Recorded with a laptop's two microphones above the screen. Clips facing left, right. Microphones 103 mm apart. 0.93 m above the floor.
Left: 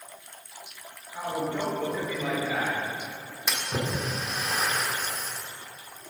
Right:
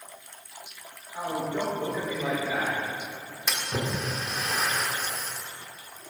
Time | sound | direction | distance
1.1 | a man speaking | 15° right (ahead or behind) | 3.5 m
3.5 | a splash | 5° left (ahead or behind) | 1.9 m